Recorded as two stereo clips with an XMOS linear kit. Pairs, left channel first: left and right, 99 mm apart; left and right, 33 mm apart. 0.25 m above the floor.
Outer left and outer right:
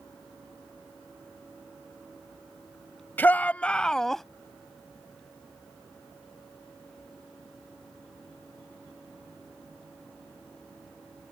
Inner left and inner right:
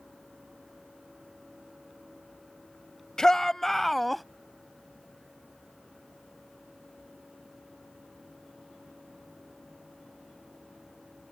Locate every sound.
3.2 s a shout: 20° left (ahead or behind); by 4.2 s 5° left (ahead or behind)